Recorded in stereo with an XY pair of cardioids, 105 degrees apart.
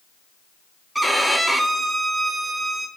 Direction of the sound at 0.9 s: 15° right.